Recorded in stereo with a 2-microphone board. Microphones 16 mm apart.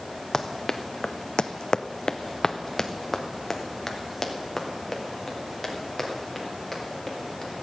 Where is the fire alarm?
No fire alarm in this recording.